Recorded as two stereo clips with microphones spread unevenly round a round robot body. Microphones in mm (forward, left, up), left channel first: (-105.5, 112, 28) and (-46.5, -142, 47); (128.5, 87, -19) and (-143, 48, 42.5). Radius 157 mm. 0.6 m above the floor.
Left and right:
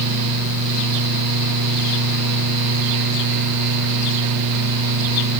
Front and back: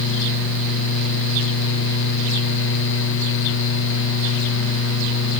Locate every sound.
Only background noise.